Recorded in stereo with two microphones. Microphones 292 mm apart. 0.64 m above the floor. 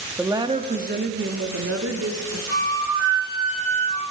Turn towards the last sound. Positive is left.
turn(degrees=-55)  # may be behind; listen again after turning